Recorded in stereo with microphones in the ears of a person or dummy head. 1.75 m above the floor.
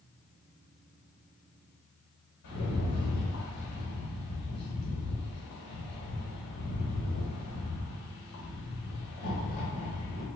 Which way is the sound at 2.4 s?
60° left (ahead or behind).